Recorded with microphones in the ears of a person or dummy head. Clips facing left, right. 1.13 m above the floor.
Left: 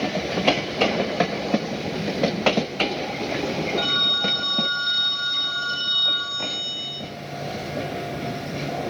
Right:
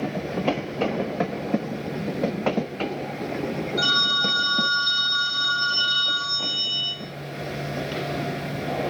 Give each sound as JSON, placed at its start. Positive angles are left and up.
{"t": 3.8, "sound": "a phone ringing", "side_deg": -35, "distance_m": 5.0}